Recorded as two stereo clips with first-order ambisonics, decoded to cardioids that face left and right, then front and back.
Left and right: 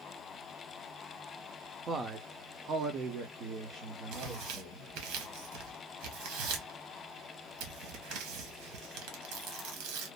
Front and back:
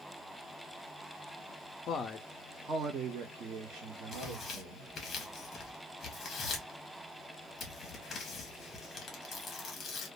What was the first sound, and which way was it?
A man speaking, 35° right.